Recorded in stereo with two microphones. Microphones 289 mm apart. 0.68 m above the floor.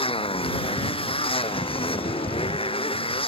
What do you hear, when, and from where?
0.0 s a motorcycle: 20° left (ahead or behind)